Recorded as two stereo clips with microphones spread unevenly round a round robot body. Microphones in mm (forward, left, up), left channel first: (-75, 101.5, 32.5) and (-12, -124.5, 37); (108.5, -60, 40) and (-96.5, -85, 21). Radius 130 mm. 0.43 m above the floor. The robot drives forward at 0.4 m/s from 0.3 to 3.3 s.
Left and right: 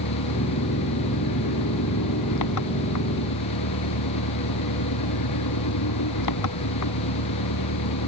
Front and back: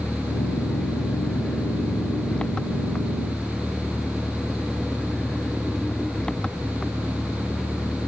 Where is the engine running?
90° left; by 8.1 s 95° left.